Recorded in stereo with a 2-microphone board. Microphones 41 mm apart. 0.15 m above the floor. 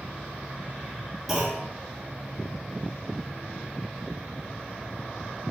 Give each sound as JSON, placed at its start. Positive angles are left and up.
{"t": 1.3, "sound": "a clunk", "side_deg": -5, "distance_m": 1.9}